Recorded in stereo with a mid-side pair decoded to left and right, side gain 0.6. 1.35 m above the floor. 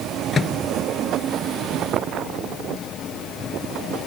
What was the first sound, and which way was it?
A microwave, 35° left.